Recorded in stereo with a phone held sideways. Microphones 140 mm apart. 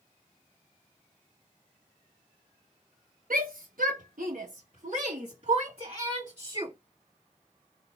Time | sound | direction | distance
3.3 | a shout | 80° right | 0.9 m